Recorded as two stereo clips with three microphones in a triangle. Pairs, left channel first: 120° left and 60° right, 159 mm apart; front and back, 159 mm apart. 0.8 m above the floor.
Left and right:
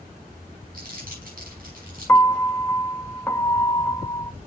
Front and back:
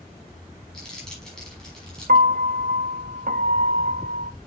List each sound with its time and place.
0.7 s crumpling: 85° right, 5.5 m
2.1 s a piano: 170° right, 0.6 m